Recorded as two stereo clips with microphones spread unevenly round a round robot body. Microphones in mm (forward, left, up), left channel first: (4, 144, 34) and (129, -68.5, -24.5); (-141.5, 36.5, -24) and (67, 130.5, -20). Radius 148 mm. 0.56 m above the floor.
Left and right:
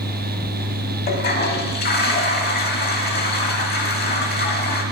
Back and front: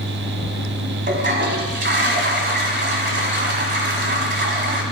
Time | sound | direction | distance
1.1 | a toilet flushing | 70° left | 1.6 m